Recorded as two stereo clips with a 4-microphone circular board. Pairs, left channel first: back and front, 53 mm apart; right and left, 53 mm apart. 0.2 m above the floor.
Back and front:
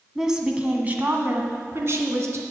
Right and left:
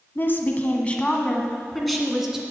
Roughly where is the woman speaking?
Right.